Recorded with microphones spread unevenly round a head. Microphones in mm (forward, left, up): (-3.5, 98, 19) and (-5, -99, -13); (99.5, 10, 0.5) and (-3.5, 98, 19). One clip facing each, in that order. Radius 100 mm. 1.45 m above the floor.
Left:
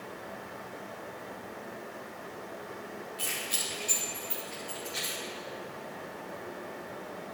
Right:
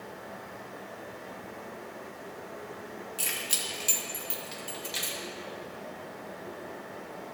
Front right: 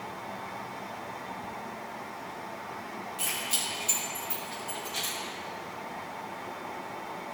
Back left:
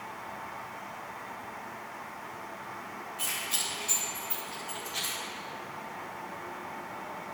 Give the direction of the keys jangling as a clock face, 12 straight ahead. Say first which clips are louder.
Even, front right 3 dB; 4 o'clock.